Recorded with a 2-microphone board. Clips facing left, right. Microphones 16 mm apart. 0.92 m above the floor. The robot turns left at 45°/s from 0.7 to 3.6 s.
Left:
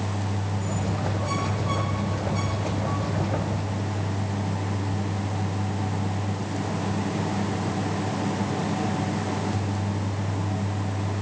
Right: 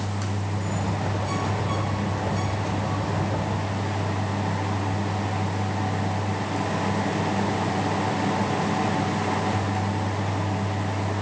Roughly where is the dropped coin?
I don't hear a dropped coin.